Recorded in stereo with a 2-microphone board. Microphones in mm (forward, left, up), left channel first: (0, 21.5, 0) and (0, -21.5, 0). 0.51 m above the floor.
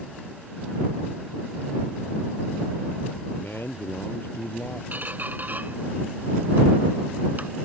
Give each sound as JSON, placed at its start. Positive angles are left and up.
{"t": 3.3, "sound": "a man speaking", "side_deg": 60}
{"t": 4.9, "sound": "a squeak", "side_deg": -45}